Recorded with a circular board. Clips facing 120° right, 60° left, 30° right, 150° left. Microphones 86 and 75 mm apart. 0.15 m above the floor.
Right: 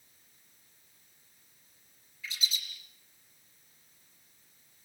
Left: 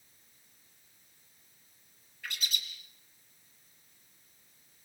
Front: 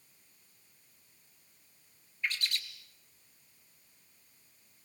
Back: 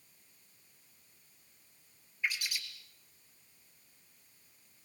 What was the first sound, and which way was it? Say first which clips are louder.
A bird: even, even; 70° left.